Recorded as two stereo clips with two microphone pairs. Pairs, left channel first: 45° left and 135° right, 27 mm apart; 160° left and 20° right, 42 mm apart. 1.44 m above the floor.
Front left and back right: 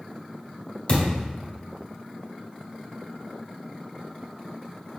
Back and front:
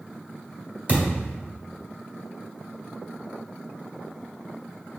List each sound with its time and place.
0.9 s a thud: 20° left, 1.6 m